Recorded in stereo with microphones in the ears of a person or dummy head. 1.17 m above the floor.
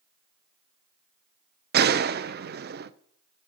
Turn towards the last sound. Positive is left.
turn(degrees=-40)  # may be behind; listen again after turning